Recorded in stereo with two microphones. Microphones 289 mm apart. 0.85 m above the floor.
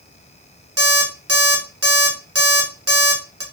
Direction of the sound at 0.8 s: 50° right (ahead or behind).